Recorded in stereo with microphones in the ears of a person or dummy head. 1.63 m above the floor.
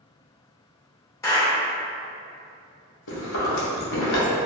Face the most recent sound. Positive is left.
turn(degrees=65)  # may be behind; listen again after turning